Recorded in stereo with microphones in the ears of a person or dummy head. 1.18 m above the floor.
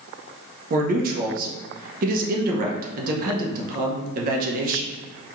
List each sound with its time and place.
0.7 s a man speaking: 50° right (ahead or behind), 0.7 m